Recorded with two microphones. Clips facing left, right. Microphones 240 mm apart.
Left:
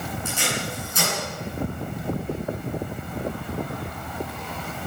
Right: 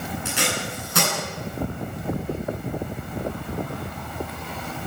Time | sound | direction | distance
0.2 | tape being pulled | 75° right (ahead or behind) | 9.5 m